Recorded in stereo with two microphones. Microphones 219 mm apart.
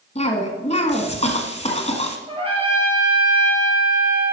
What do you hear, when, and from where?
0.1 s a cough: 30° left (ahead or behind), 1.5 m
2.3 s a trumpet: 25° right (ahead or behind), 2.5 m